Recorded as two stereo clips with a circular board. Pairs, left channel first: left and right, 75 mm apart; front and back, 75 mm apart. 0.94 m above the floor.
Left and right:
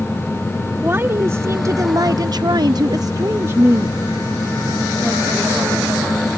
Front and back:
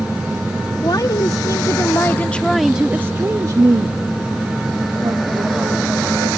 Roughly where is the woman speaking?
Ahead right.